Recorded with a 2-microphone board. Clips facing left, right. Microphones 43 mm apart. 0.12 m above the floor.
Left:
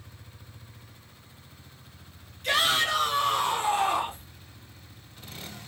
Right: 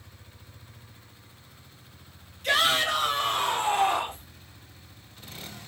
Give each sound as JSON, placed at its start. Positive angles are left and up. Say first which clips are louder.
{"t": 2.4, "sound": "a shout", "louder": "right 1 dB", "side_deg": 0, "distance_m": 1.5}